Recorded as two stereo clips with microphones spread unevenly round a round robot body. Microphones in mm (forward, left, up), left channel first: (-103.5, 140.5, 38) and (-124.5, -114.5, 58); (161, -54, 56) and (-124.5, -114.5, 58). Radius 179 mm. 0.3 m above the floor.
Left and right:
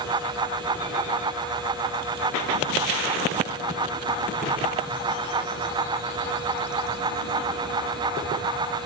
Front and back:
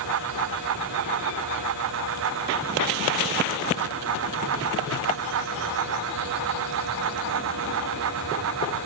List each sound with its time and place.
Only background noise.